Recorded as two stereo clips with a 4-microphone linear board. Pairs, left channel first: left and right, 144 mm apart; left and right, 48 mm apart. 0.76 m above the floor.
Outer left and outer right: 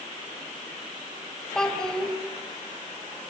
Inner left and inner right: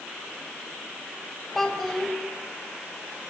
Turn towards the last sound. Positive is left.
turn(degrees=5)  # may be behind; listen again after turning